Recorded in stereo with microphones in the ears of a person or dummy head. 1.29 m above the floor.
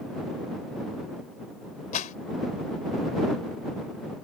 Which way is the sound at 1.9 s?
50° left (ahead or behind).